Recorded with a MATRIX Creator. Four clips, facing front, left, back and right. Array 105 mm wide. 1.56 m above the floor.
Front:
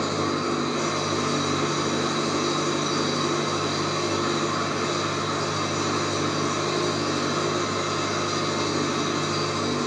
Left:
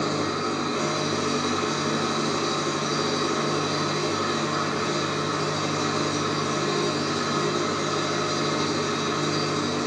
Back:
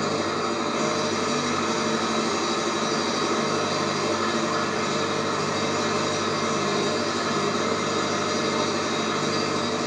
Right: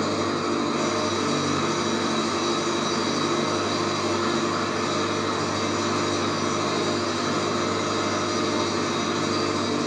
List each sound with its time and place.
0.0 s an engine running: 155° right, 2.5 m